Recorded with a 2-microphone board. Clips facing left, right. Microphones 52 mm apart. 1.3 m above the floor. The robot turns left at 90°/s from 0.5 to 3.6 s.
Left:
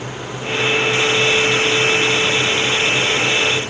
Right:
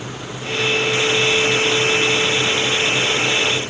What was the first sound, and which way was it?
Only background noise.